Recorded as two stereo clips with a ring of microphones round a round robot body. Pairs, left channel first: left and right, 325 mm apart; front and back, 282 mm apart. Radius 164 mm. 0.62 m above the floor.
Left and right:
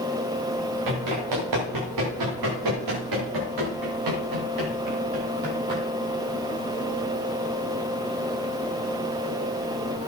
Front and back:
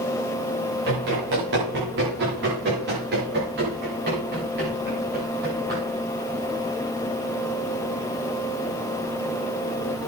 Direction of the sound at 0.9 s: 120° right.